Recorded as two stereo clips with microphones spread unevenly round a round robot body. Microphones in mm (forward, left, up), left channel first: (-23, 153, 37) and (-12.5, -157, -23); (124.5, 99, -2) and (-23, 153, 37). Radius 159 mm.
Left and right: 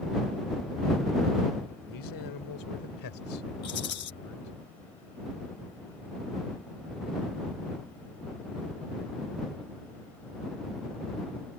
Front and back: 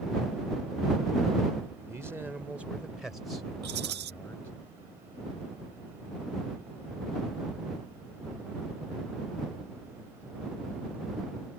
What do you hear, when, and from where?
1.9 s a man speaking: 80° left; by 4.5 s 50° left
3.6 s a rattle: 150° left